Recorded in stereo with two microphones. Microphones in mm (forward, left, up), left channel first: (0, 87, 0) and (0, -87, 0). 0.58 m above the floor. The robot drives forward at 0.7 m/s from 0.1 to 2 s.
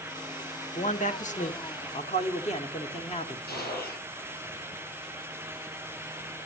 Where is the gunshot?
65° left (ahead or behind), 9 m.